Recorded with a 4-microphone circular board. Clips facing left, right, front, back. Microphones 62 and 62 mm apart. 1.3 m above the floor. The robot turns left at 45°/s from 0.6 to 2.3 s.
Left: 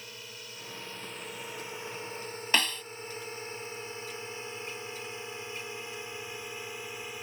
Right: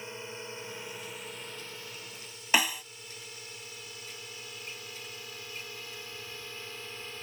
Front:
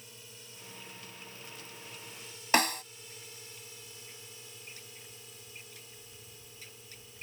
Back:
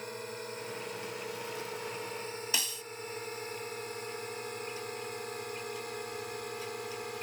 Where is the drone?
155° right; by 7.2 s 170° left.